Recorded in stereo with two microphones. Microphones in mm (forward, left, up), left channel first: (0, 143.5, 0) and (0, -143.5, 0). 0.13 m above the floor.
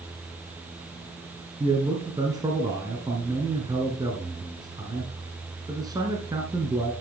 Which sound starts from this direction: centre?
A man speaking, at 1.6 s.